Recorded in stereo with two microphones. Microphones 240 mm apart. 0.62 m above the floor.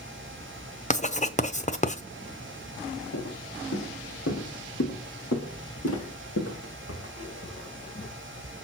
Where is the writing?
30° left (ahead or behind), 0.7 m.